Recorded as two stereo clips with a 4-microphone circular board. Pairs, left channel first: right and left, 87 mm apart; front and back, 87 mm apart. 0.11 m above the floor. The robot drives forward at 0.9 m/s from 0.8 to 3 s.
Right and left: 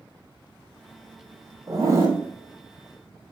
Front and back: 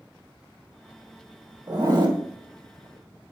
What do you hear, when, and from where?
1.7 s a zipper: 140° left, 2.0 m; by 2.2 s 150° left, 2.5 m